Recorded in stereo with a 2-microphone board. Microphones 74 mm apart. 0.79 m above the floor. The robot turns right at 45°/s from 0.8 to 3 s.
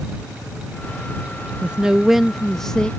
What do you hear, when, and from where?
1.6 s a man speaking: 15° right (ahead or behind); by 2.9 s 10° left (ahead or behind)